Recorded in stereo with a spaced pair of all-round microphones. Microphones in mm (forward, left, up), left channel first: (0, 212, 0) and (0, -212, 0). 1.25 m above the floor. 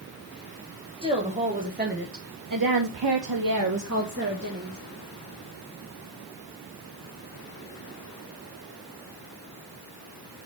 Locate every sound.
1.0 s a woman speaking: 15° right (ahead or behind), 3 m; by 4.8 s 25° right (ahead or behind), 2.5 m